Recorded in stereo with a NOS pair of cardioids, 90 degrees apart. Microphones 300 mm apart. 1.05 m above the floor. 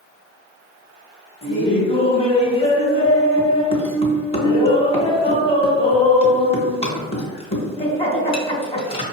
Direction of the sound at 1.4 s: 20° left.